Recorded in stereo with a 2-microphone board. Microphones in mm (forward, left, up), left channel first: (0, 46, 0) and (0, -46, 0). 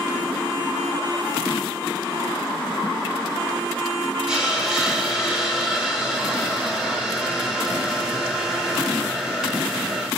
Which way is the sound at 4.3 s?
5° right (ahead or behind).